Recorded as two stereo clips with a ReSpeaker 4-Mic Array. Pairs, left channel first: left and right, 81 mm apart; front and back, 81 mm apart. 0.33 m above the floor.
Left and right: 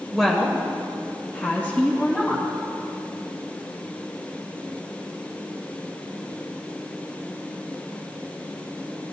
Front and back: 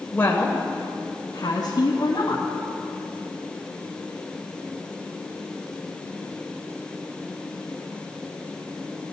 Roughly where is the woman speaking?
Ahead.